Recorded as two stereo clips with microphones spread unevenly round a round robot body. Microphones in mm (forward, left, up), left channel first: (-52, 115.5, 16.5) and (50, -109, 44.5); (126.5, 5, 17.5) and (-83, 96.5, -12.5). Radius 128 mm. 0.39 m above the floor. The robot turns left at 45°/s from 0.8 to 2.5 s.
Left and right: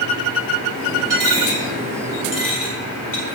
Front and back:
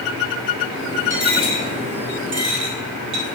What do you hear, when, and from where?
1.1 s a dropped coin: 120° right, 2.5 m; by 3.3 s 175° left, 2.5 m